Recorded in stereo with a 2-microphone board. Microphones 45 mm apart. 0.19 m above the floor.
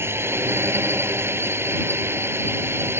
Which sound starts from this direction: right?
A drone, at 0.0 s.